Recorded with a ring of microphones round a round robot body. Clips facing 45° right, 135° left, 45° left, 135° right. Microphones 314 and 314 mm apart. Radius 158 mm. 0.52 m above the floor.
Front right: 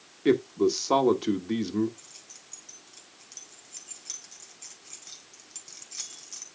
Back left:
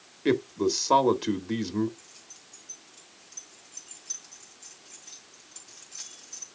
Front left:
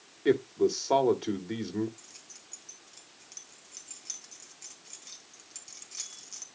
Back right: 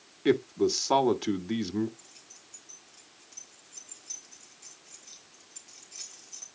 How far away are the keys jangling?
About 3 m.